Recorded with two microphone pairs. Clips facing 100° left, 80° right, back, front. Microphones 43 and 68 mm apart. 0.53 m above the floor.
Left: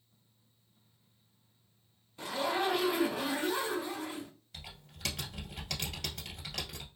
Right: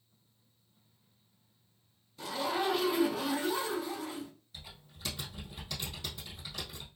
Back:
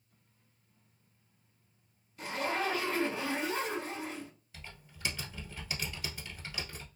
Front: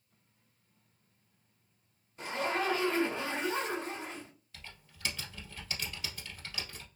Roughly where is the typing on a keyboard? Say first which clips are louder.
Left 1 dB, front 1 dB; left.